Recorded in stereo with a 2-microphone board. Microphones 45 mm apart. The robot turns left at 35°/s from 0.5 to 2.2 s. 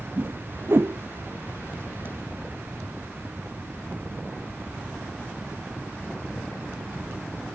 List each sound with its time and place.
0.2 s a whoosh: 45° right (ahead or behind); by 1.0 s 60° right (ahead or behind)